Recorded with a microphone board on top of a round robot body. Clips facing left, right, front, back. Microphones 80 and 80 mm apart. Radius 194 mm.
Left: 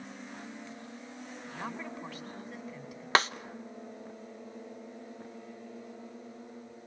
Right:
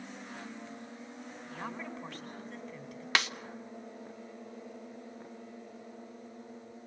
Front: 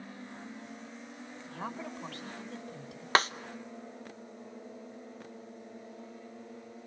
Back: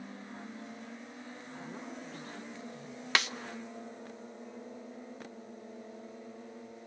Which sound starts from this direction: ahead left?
A snare drum, at 3.1 s.